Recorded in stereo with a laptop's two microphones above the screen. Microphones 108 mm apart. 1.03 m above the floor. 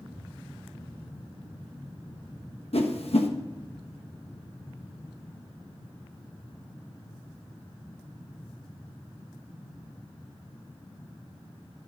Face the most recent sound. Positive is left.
turn(degrees=70)  # may be behind; listen again after turning